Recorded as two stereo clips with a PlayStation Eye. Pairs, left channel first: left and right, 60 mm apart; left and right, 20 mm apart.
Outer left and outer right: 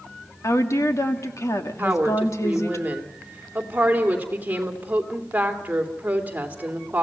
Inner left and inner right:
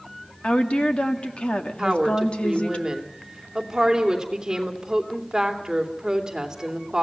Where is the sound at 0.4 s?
55° left (ahead or behind), 2 m.